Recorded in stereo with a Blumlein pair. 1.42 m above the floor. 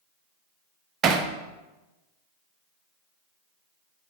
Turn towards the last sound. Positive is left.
turn(degrees=-25)